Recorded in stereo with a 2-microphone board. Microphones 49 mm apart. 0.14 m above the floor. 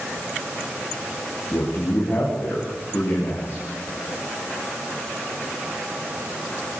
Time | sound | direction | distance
1.5 | a man speaking | 60° left (ahead or behind) | 9 m